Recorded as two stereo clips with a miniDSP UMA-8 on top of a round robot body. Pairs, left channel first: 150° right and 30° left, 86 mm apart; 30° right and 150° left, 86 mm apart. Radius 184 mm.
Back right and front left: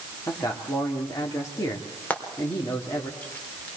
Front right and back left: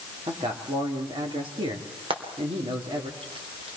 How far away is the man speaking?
About 3.5 m.